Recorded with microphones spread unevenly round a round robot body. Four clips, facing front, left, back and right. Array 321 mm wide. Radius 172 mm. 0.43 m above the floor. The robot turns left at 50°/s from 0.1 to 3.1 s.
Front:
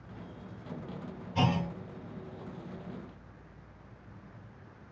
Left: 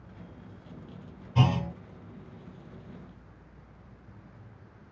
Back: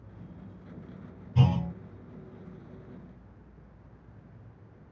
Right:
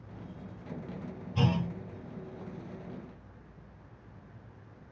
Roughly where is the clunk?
Behind left.